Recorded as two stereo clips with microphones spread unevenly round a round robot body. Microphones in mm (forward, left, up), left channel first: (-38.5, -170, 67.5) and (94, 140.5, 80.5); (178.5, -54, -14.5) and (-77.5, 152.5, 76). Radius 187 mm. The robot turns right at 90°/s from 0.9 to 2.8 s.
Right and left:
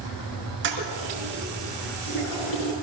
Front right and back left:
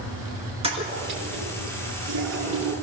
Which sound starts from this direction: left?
A toilet flushing, at 0.6 s.